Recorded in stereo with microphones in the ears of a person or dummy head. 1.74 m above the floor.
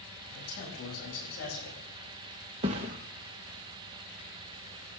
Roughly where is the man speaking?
Left.